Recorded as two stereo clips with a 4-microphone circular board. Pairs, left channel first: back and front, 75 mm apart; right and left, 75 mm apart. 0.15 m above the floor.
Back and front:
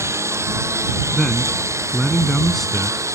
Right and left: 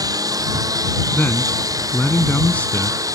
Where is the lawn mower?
55° left; by 3.1 s 50° left.